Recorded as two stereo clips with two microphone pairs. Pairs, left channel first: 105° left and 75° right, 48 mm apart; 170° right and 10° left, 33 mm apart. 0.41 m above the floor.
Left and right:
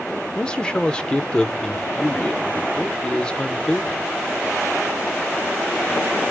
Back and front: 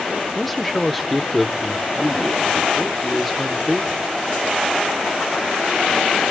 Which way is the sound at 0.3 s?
110° left.